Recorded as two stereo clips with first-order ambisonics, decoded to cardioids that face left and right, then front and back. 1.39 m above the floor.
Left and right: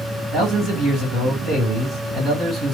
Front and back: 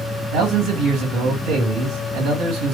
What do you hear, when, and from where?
0.3 s a man speaking: 155° right, 2 m